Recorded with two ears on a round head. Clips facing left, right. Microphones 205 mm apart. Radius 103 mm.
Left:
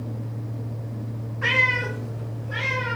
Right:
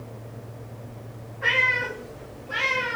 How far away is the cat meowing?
About 1.0 m.